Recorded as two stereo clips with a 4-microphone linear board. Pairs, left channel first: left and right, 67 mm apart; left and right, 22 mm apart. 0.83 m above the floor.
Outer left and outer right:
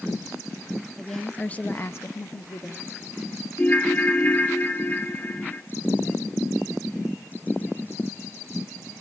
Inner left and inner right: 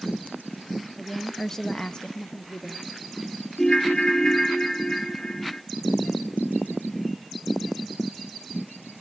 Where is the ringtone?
25° left (ahead or behind), 1.0 m.